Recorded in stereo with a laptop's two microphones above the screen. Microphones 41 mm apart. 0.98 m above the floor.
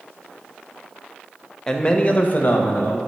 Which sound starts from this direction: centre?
A man speaking, at 1.7 s.